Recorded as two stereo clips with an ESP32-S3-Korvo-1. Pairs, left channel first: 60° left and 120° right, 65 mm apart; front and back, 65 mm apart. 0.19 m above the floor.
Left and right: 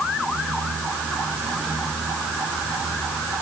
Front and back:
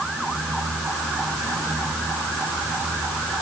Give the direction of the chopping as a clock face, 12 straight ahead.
I don't hear chopping.